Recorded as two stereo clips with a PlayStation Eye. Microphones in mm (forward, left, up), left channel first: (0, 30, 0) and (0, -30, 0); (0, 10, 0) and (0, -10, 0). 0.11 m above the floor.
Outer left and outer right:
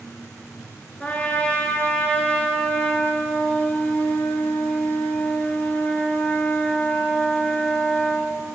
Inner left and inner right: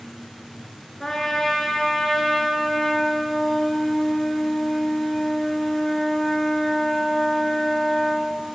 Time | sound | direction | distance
1.0 | a trumpet | 20° left (ahead or behind) | 1.7 m